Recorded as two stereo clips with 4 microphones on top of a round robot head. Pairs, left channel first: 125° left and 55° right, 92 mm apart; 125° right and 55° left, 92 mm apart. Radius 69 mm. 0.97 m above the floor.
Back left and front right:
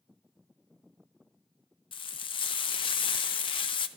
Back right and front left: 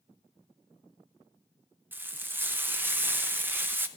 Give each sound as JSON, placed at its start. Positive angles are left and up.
{"t": 1.9, "sound": "frying", "azimuth_deg": 120, "distance_m": 0.6}